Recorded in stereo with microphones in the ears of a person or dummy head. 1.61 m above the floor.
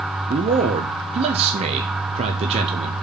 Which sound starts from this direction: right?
A man speaking, at 0.3 s.